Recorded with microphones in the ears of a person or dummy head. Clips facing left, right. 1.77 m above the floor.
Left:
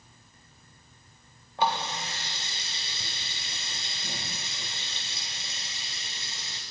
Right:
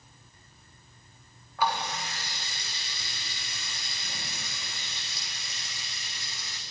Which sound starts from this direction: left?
A running tap, at 1.6 s.